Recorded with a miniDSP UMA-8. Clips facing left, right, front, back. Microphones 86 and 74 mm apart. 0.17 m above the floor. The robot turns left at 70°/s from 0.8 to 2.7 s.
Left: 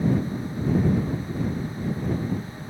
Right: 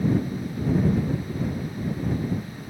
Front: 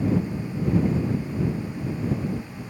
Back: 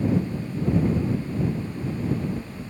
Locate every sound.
Only background noise.